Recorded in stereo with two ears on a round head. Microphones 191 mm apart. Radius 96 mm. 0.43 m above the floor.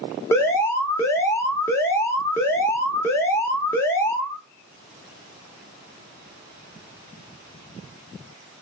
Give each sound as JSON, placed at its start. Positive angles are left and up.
{"t": 0.3, "sound": "an alarm", "side_deg": 10, "distance_m": 0.5}